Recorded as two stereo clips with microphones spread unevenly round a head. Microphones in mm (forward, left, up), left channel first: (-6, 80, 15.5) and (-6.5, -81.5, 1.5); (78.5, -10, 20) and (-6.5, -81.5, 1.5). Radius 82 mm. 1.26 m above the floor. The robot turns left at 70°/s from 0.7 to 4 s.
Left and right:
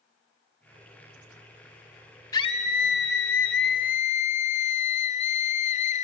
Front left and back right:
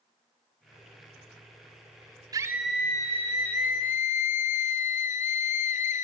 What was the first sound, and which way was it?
A scream, 165° left.